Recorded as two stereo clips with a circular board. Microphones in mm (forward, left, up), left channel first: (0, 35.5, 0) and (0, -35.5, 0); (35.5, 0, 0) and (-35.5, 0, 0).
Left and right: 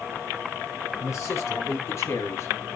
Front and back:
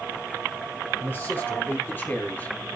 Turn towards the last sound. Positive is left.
turn(degrees=55)